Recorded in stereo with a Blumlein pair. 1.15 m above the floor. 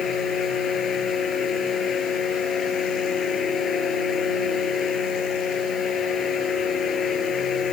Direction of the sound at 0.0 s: 20° left.